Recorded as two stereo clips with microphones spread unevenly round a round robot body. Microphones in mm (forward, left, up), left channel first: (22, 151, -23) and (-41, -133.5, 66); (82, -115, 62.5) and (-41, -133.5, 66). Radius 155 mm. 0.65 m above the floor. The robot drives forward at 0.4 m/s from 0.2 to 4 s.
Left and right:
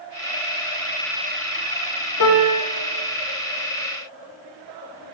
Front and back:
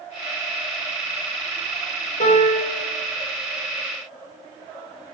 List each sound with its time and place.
2.2 s a piano: 40° left, 2.0 m; by 2.8 s 45° left, 1.8 m